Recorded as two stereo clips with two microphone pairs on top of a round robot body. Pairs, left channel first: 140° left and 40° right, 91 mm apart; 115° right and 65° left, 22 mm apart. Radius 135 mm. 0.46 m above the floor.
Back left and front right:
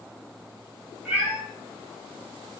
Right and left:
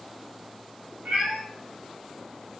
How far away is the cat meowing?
About 0.7 m.